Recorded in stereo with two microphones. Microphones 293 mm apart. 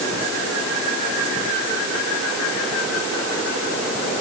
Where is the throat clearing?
No throat clearing in this recording.